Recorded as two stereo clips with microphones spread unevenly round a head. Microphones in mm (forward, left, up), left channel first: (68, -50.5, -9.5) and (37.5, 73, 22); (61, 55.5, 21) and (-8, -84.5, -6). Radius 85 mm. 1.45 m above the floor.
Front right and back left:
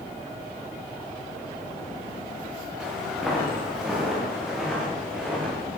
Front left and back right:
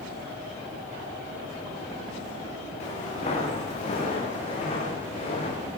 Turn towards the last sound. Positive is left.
turn(degrees=20)